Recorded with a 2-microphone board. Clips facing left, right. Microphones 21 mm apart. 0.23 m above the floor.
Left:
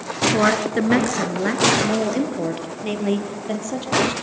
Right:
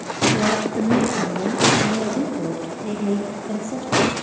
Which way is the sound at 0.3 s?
65° left (ahead or behind).